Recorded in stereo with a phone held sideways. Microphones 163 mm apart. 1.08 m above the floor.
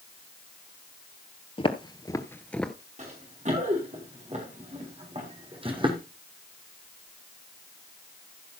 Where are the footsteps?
35° left (ahead or behind), 1.2 m; by 2.7 s centre (ahead or behind), 1.0 m.